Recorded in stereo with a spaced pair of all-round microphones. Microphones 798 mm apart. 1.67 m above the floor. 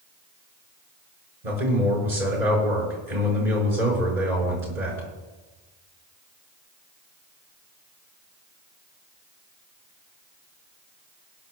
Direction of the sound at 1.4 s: 60° right (ahead or behind).